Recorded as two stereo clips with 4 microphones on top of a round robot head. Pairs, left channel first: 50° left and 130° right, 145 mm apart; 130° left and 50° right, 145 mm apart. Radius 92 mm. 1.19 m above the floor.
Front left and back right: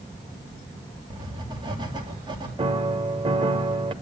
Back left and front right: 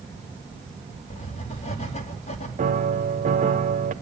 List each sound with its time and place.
1.1 s writing: 170° left, 2.5 m
2.6 s a piano: 75° right, 1.0 m